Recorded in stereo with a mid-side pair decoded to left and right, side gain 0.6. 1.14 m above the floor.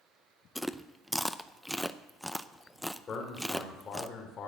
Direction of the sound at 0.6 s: Straight ahead.